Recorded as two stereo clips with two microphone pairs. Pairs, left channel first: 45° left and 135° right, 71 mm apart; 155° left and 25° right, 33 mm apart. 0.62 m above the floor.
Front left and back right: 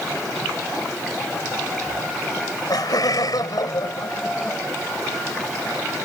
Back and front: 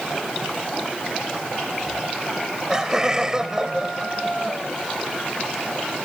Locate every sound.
2.3 s laughter: 45° left